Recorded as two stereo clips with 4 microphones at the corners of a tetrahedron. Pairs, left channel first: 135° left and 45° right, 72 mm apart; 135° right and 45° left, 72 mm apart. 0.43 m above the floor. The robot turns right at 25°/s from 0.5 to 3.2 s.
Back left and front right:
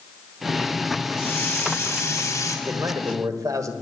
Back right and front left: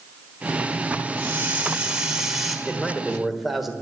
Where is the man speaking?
55° right, 1.4 m; by 3.7 s 40° right, 1.4 m.